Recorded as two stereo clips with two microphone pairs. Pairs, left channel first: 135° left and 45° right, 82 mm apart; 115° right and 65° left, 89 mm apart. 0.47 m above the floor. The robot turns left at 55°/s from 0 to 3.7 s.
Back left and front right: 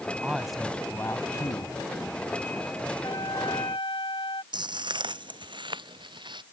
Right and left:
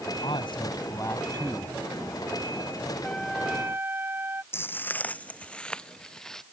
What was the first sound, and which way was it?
A man speaking, 120° right.